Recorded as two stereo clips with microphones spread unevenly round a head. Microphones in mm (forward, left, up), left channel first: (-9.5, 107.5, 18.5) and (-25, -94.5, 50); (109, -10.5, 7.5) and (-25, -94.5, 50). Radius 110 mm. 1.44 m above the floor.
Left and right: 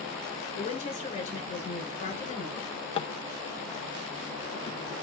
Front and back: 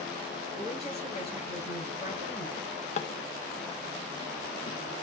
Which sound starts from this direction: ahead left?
A drawer, at 2.6 s.